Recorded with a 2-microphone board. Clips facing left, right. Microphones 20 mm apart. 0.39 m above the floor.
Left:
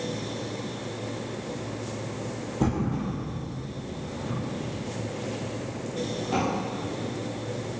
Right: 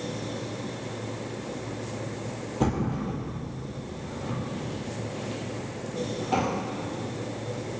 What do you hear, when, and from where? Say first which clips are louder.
2.6 s a thud: even; 20° right (ahead or behind), 2.5 m